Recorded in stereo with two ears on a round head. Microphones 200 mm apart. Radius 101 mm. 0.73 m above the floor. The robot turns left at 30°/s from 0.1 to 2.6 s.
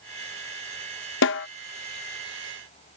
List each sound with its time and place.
1.2 s a snare drum: 55° left (ahead or behind); by 1.5 s 50° left (ahead or behind)